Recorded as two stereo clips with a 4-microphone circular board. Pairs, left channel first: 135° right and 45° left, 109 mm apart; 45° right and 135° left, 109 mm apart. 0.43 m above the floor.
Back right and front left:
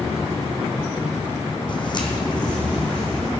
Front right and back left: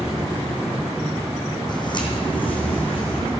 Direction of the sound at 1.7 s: 90° right.